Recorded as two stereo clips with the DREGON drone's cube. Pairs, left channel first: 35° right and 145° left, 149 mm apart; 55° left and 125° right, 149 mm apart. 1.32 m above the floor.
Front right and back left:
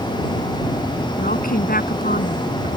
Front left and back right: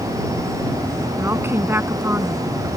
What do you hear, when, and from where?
1.2 s a woman speaking: 50° right